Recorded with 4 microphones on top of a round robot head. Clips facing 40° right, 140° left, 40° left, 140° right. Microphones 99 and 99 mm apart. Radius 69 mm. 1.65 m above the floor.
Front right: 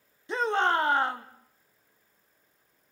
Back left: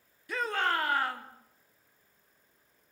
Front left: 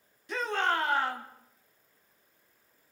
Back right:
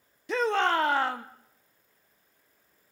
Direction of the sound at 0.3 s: 110° right.